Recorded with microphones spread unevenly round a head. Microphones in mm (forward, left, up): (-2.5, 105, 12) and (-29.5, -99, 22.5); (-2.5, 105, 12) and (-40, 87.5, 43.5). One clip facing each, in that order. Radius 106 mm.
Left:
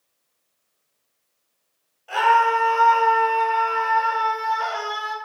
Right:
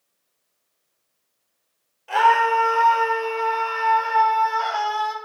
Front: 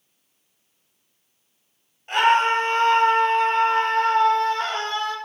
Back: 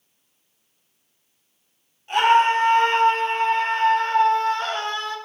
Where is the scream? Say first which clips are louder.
Right 1 dB, back 1 dB; 40° right, 6.5 m; by 5.2 s 60° right, 5 m.